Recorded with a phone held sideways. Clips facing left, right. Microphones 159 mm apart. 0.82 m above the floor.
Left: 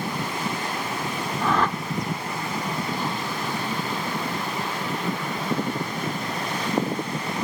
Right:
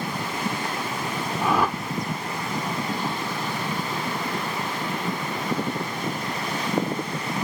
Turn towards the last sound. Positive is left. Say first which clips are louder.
# right 1 dB
turn(degrees=-10)  # may be behind; listen again after turning